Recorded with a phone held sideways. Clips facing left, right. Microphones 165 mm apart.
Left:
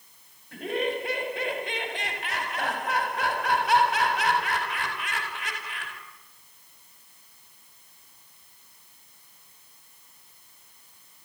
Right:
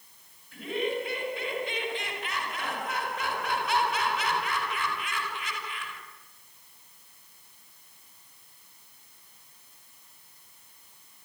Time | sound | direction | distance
0.5 | laughter | 70° left (ahead or behind) | 4.5 m